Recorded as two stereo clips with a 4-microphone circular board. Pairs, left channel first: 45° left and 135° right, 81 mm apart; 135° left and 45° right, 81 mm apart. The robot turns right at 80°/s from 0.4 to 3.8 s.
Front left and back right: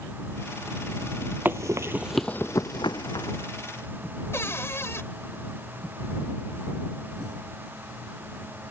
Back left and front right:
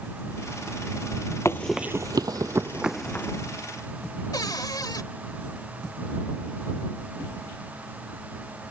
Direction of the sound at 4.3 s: 100° left.